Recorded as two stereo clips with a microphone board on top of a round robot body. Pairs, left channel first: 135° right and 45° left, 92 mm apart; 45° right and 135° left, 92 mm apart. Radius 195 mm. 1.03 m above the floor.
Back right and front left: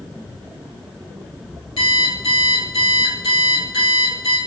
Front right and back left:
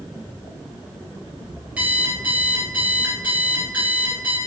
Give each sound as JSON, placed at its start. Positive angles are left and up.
{"t": 1.8, "sound": "an alarm clock", "azimuth_deg": -150, "distance_m": 3.5}